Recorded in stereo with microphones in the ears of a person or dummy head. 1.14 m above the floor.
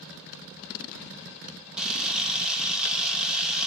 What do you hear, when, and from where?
1.8 s a camera shutter: centre (ahead or behind), 1.3 m